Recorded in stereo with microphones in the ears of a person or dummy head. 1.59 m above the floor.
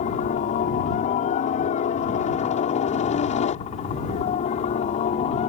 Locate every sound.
0.0 s a helicopter: 40° left (ahead or behind); by 5.5 s 35° left (ahead or behind)